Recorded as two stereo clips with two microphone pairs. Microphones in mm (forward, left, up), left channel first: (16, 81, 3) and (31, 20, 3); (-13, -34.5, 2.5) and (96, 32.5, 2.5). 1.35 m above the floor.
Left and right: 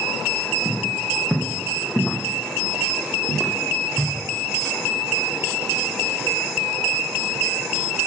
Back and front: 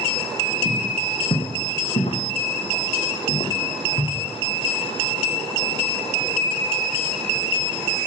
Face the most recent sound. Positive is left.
turn(degrees=-155)